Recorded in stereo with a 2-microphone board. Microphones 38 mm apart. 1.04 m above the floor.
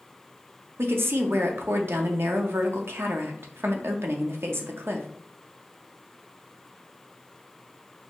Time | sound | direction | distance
0.8 | a woman speaking | 80° right | 0.7 m